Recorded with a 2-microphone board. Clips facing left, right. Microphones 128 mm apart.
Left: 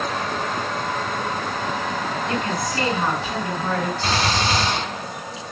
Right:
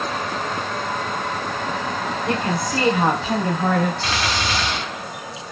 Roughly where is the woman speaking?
Right.